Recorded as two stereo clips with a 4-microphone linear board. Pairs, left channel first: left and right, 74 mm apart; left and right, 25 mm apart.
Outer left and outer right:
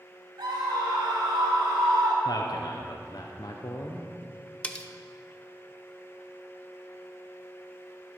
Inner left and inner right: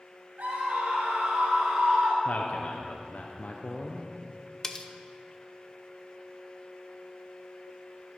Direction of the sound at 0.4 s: 70° right (ahead or behind).